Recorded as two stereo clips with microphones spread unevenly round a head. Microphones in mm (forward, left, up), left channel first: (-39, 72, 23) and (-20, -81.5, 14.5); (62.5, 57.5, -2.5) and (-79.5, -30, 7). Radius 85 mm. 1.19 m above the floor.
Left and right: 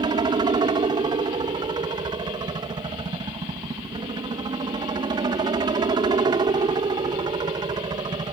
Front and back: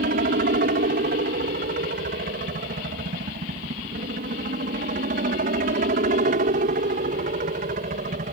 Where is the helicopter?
135° right.